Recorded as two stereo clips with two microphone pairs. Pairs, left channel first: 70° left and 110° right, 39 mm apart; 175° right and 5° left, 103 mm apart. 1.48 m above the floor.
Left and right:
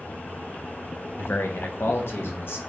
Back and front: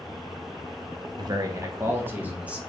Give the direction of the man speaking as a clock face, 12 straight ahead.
10 o'clock.